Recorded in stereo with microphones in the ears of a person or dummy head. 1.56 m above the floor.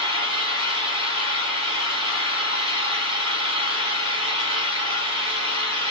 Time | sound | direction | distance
0.0 | an engine running | 30° right (ahead or behind) | 1.3 m